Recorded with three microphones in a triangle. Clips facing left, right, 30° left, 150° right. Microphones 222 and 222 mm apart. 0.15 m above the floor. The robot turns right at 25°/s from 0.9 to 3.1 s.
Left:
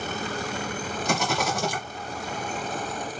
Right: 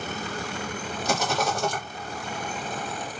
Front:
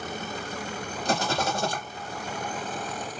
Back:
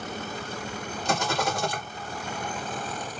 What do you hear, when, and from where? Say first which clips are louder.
1.1 s a rattle: right 1 dB, even; 5° right, 2.5 m; by 1.8 s 10° left, 2.5 m